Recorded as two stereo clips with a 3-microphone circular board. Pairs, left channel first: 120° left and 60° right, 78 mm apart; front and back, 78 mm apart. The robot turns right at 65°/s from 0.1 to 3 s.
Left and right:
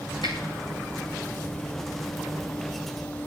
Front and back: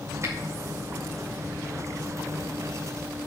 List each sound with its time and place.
0.2 s a finger snap: 130° left, 5.5 m; by 0.3 s 135° left, 5.5 m